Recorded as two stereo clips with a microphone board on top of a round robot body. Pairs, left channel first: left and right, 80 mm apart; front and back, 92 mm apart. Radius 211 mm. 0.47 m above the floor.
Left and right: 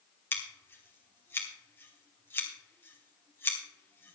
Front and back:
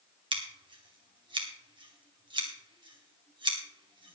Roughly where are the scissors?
Behind left.